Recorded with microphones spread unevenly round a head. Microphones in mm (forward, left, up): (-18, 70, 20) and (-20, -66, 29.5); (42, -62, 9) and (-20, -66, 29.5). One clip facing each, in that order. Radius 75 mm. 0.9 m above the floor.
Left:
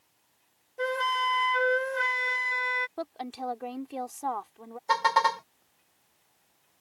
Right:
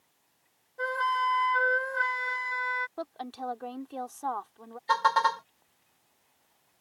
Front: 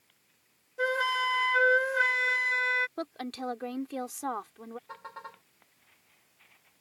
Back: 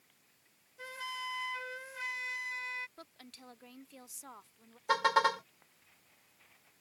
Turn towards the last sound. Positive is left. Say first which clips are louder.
# left 1 dB, back 16 dB
turn(degrees=165)